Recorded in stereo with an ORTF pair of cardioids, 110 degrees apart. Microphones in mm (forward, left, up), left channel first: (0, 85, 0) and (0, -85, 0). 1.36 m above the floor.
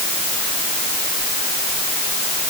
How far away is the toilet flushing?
I don't hear a toilet flushing.